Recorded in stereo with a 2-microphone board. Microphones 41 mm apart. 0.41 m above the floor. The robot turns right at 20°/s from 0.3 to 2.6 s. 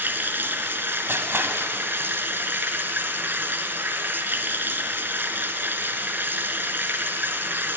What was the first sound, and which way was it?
Running water, 115° right.